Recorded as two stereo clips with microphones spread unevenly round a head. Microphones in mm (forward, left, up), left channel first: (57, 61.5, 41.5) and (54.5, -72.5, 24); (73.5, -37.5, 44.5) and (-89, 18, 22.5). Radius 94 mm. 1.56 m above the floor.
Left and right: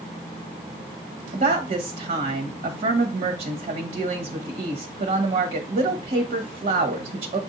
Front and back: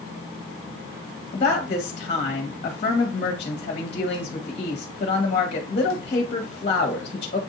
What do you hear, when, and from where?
1.3 s a woman speaking: 70° right, 1.2 m